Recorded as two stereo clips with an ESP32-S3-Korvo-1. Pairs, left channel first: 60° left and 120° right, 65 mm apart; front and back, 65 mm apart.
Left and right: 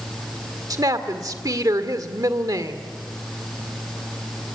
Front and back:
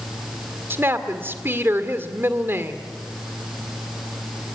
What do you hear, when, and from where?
0.7 s a woman speaking: 130° right, 1.9 m